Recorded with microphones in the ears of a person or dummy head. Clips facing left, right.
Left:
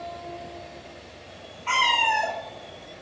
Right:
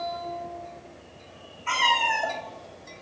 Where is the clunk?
I don't hear a clunk.